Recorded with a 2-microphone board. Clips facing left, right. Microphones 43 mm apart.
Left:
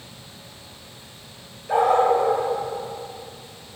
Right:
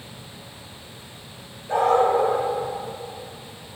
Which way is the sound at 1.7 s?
20° left (ahead or behind).